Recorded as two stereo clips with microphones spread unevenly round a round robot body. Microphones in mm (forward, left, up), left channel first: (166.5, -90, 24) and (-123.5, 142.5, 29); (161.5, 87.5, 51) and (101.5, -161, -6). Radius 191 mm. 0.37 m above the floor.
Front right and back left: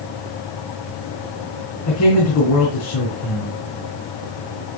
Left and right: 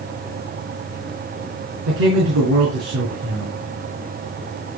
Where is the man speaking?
85° right, 3.5 m.